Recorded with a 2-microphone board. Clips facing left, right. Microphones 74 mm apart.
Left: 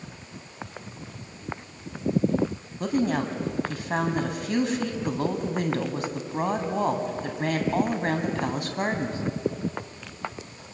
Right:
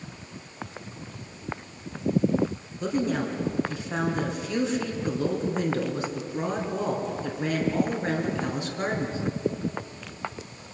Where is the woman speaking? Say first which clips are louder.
Left 2 dB; 55° left (ahead or behind), 3 m.